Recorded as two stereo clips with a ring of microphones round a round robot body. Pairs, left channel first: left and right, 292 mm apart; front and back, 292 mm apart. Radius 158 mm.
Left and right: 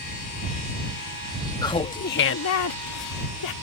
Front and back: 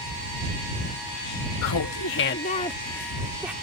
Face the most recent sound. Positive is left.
turn(degrees=95)